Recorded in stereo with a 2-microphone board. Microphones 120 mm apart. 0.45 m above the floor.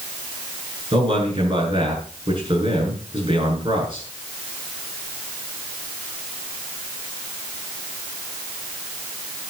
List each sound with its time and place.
0.9 s a man speaking: 45° right (ahead or behind), 7.5 m